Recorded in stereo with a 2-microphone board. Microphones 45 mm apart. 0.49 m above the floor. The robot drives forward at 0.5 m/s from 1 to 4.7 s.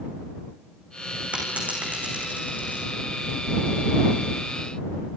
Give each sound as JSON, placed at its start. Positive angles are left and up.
{"t": 1.3, "sound": "a dropped coin", "side_deg": -30, "distance_m": 6.5}